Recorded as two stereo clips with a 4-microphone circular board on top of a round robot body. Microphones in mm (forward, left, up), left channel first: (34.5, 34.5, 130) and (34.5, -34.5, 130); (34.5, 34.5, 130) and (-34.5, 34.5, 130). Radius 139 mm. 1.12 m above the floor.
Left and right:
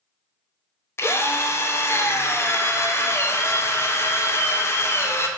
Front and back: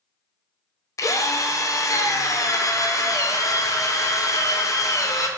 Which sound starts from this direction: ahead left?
A drill, at 1.0 s.